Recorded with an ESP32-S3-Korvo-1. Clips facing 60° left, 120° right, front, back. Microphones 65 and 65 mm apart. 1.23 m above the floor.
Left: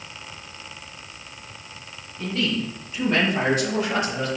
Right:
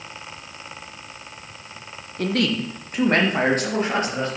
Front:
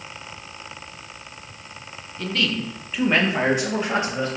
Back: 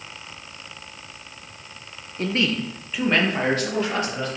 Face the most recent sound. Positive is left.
turn(degrees=-65)